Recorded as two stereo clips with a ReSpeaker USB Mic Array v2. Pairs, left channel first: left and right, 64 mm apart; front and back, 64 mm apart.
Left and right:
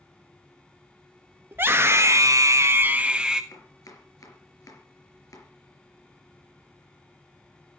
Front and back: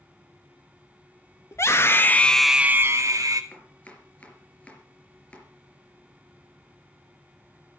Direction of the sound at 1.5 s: 35° right.